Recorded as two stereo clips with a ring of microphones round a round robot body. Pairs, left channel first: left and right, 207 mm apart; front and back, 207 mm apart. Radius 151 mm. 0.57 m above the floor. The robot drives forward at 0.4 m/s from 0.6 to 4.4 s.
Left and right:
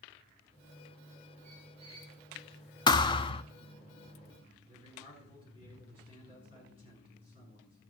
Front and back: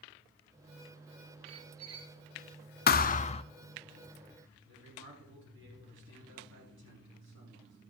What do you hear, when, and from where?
1.4 s a squeak: 160° right, 0.9 m; by 2.1 s 165° right, 1.2 m
2.9 s a thud: 25° left, 0.6 m; by 3.4 s 45° left, 0.5 m
4.7 s a man speaking: 155° left, 6 m